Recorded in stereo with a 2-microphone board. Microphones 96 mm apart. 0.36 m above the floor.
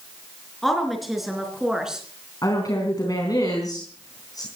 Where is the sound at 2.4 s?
40° left (ahead or behind), 4 m.